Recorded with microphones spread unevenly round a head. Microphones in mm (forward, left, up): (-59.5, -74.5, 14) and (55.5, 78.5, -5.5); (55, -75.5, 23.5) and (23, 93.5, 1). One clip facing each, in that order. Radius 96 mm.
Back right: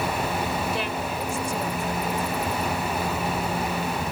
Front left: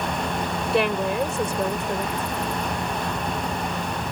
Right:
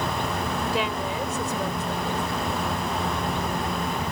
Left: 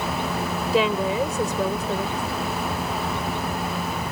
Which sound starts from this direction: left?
A woman speaking, at 0.7 s.